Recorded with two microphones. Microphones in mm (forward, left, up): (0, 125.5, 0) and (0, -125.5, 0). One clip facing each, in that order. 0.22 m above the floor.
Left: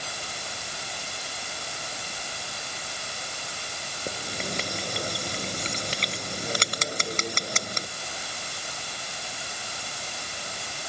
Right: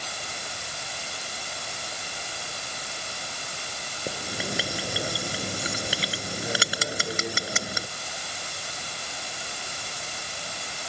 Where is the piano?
I don't hear a piano.